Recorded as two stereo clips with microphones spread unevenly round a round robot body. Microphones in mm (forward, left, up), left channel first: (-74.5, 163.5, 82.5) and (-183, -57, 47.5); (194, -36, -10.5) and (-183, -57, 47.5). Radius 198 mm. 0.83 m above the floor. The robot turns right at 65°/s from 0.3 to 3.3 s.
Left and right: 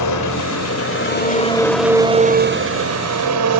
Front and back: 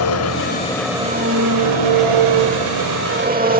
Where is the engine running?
55° left, 3.5 m; by 3.6 s 110° right, 3.5 m.